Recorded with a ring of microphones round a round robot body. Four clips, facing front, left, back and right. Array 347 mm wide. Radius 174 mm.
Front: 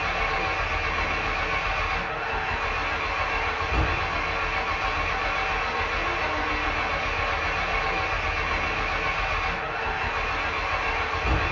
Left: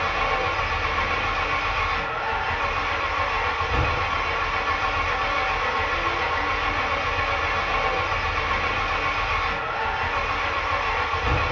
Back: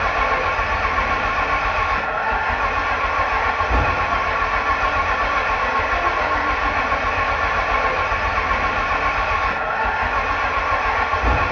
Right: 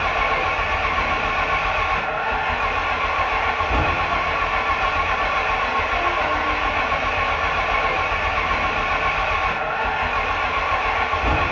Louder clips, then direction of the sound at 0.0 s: Right 3 dB, back 8 dB; 150° right.